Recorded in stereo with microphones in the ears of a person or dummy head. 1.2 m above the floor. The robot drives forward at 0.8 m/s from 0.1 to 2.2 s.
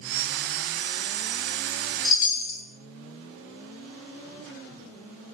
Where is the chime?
60° left (ahead or behind), 1.7 m; by 2.6 s 65° left (ahead or behind), 1.6 m.